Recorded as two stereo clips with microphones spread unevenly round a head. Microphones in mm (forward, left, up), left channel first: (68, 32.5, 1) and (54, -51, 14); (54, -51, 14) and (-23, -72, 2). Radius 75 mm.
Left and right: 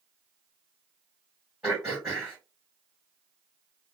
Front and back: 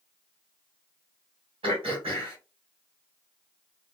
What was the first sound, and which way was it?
Throat clearing, 175° left.